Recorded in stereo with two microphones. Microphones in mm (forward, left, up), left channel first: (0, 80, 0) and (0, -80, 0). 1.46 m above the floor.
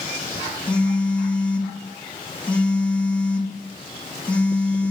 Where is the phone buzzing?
10° left (ahead or behind), 1.5 m.